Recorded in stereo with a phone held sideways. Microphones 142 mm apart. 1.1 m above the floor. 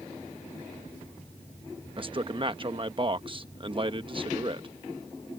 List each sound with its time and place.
2.0 s a man speaking: 35° right (ahead or behind)